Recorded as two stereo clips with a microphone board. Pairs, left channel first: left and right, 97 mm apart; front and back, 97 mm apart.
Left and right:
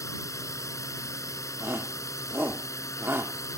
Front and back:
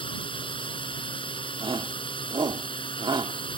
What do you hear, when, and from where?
0.0 s a drone: 30° left
1.6 s a shout: 155° right